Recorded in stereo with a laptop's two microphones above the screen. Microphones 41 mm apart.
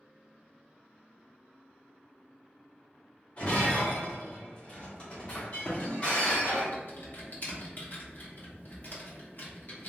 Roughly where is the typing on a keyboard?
Left.